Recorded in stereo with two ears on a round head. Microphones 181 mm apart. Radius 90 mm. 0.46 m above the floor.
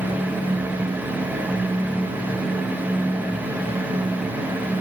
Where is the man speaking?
I don't hear a man speaking.